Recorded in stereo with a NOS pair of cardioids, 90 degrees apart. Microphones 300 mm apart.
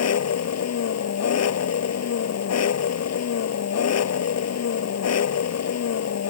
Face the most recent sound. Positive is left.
turn(degrees=60)